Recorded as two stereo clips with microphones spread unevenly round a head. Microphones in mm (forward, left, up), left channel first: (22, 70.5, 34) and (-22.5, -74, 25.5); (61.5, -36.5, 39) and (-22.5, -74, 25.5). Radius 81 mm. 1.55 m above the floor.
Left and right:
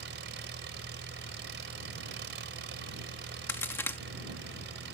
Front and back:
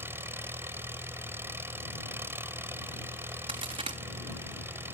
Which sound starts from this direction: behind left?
A crack, at 3.5 s.